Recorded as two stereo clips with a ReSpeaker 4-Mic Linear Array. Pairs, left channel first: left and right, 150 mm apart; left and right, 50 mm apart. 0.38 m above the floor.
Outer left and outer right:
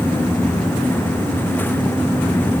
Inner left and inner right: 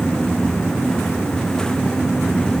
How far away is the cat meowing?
No cat meowing in this recording.